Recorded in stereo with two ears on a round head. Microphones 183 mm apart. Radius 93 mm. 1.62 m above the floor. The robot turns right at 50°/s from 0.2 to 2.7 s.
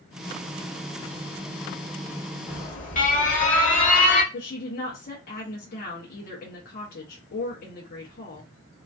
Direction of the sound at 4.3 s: 50° left (ahead or behind).